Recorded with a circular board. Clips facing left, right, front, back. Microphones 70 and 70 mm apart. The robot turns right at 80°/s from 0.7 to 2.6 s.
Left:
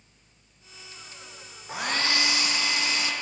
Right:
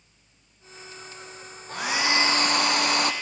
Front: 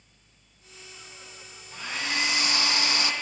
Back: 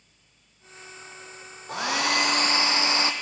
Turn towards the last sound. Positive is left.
turn(degrees=-120)